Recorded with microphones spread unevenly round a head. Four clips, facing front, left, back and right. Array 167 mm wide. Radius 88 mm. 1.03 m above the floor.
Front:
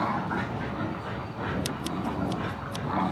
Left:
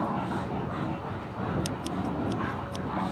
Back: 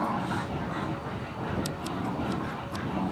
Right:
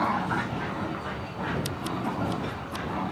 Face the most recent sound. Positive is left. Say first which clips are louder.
# right 1 dB, front 1 dB
turn(degrees=-15)